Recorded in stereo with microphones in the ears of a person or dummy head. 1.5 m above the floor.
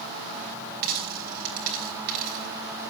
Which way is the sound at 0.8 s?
45° right (ahead or behind).